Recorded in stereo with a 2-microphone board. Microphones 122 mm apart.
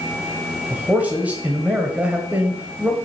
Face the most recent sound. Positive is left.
turn(degrees=-10)  # may be behind; listen again after turning